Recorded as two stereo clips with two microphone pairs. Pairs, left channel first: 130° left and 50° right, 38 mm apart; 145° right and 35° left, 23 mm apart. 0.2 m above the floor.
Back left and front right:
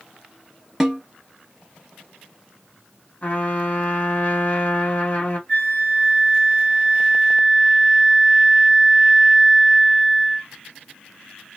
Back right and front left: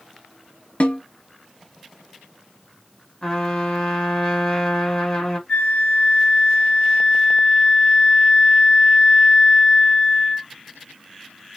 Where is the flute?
Straight behind, 1.7 m.